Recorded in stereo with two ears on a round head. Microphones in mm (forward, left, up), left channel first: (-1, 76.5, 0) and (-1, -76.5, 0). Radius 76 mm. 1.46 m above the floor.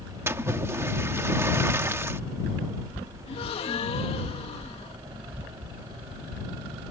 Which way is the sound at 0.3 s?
15° right (ahead or behind).